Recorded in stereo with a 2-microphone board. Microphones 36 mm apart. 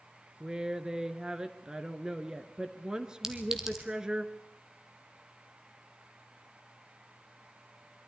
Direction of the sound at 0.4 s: 20° right (ahead or behind).